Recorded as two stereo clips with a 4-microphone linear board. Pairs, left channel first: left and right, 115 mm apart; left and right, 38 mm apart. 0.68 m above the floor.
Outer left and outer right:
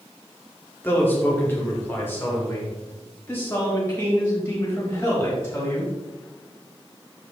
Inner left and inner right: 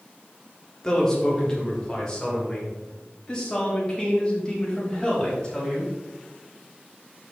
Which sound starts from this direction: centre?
A man speaking, at 0.8 s.